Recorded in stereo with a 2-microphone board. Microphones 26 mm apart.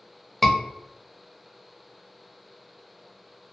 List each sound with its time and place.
0.4 s a scream: centre (ahead or behind), 0.6 m